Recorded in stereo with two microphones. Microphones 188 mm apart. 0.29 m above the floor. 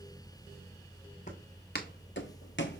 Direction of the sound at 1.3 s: 45° left (ahead or behind).